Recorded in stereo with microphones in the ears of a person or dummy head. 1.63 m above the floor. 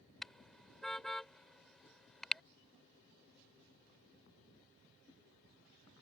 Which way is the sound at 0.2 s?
Centre (ahead or behind).